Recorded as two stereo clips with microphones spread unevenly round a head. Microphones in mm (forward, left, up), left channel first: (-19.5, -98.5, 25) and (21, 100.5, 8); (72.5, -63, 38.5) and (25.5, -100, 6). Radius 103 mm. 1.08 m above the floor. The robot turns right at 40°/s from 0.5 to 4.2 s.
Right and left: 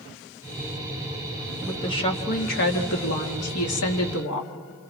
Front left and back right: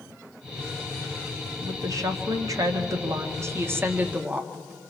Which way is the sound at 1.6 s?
Straight behind.